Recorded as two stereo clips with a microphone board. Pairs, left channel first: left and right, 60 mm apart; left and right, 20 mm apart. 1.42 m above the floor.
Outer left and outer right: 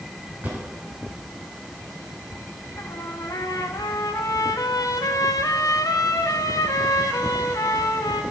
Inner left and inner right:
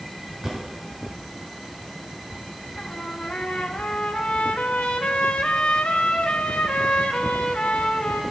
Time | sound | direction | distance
0.4 | a drawer | 30° right (ahead or behind) | 4.5 m
2.8 | a trumpet | 75° left (ahead or behind) | 0.8 m